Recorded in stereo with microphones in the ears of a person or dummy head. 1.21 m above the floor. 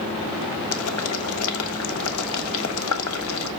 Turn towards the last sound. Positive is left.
turn(degrees=70)  # may be behind; listen again after turning